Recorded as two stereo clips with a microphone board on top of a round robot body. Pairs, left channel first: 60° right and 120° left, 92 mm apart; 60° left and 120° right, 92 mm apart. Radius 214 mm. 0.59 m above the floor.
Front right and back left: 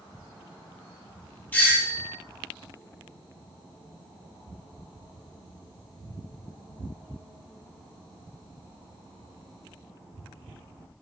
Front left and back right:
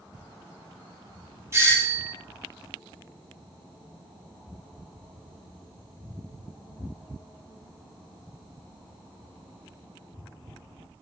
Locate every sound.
1.5 s a doorbell: 115° right, 1.1 m